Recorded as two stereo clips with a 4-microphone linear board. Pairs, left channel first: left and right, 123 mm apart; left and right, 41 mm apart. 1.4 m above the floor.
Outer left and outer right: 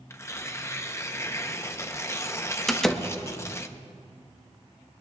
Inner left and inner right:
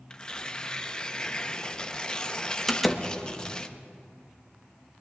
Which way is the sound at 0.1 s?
25° left (ahead or behind).